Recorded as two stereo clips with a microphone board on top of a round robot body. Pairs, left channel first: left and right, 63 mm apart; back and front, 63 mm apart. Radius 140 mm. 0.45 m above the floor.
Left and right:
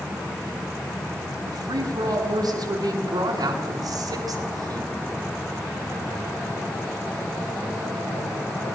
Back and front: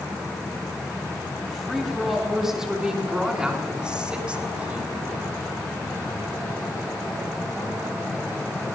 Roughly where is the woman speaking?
Right.